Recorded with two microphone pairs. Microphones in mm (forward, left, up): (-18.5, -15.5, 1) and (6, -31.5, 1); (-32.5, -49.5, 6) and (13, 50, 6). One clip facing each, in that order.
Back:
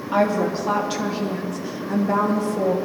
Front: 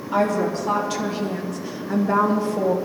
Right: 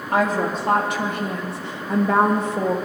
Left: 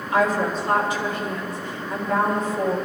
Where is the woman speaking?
150° right, 2.5 m; by 2.8 s 95° right, 1.9 m.